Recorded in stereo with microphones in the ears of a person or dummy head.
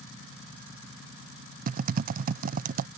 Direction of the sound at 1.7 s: 45° right (ahead or behind).